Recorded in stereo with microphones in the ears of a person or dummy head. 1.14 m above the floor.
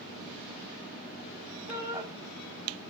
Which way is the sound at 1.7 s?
25° right (ahead or behind).